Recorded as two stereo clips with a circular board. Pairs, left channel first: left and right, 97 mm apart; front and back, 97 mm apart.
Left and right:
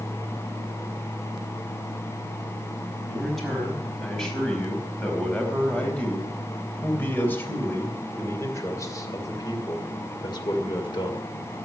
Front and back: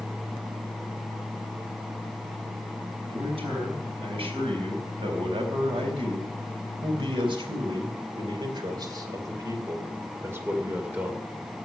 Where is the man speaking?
Straight behind, 5 m; by 11.3 s 105° left, 2.5 m.